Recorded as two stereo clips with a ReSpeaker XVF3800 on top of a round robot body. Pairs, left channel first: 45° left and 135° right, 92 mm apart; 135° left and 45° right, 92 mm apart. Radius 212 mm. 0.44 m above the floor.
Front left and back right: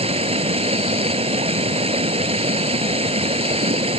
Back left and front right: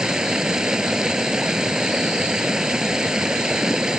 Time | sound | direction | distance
0.0 | running water | 130° right | ?